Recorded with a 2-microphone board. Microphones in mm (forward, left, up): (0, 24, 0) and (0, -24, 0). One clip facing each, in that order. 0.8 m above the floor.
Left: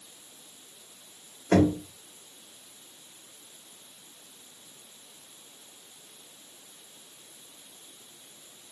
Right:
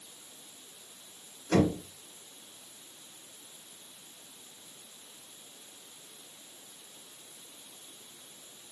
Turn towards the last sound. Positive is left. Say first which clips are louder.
# left 4 dB
turn(degrees=45)  # may be behind; listen again after turning